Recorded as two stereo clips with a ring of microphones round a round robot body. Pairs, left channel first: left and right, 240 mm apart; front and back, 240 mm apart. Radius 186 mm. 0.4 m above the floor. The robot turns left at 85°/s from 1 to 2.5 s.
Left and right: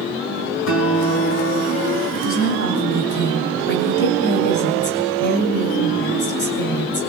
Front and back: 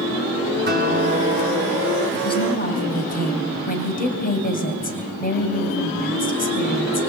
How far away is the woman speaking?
About 3.5 m.